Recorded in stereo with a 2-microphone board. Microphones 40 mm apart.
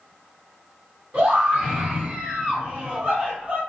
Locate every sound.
1.1 s a scream: 40° right (ahead or behind), 1.6 m